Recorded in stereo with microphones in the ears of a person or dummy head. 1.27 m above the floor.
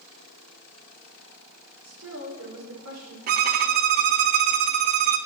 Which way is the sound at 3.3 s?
50° right (ahead or behind).